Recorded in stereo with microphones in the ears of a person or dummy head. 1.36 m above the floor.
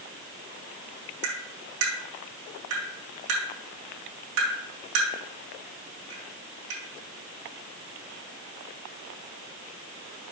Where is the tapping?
80° right, 3.5 m.